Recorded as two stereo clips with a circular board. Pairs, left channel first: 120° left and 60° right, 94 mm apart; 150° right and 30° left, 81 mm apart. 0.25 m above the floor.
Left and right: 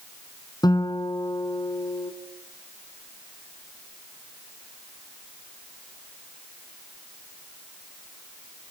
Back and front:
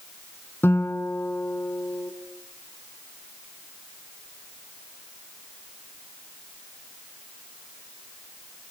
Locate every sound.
0.6 s a guitar: 155° left, 2 m